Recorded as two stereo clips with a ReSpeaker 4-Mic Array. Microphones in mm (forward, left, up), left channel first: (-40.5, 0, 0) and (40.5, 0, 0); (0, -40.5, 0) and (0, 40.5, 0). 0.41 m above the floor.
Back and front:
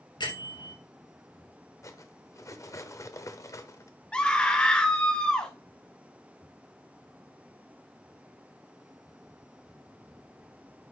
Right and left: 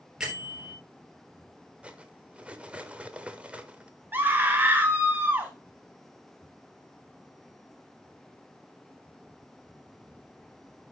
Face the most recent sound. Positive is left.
turn(degrees=120)